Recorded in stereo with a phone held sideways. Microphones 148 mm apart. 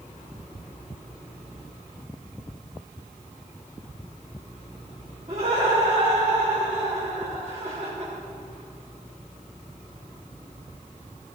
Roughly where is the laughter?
Right.